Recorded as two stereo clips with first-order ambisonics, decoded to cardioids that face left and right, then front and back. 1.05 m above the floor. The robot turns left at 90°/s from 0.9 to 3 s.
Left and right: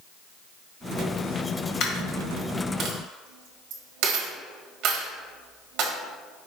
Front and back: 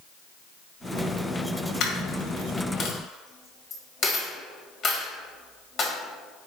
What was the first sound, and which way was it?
A dropped coin, 50° left.